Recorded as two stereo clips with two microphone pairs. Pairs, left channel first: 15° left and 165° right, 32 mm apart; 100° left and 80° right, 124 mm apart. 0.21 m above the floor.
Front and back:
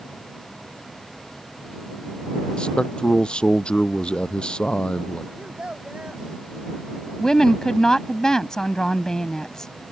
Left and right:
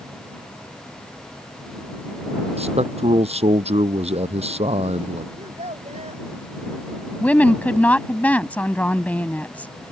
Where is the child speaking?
110° right.